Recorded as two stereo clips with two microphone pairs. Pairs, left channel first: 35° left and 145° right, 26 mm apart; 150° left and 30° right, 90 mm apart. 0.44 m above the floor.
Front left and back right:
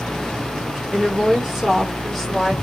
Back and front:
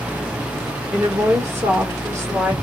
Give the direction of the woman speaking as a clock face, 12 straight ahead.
3 o'clock.